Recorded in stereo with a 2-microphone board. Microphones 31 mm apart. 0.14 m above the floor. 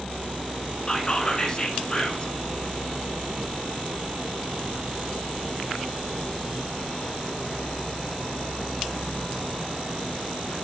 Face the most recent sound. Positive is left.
turn(degrees=30)  # may be behind; listen again after turning